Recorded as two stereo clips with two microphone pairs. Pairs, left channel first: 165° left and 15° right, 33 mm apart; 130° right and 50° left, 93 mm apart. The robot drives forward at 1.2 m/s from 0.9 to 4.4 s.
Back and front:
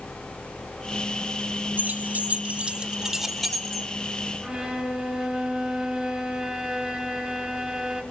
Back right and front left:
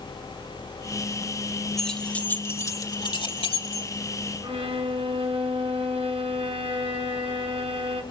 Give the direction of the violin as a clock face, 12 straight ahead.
10 o'clock.